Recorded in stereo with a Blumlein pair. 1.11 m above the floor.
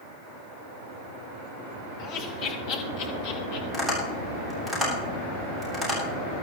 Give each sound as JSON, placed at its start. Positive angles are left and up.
{"t": 2.0, "sound": "laughter", "azimuth_deg": 45, "distance_m": 4.5}
{"t": 3.7, "sound": "tapping", "azimuth_deg": -5, "distance_m": 7.5}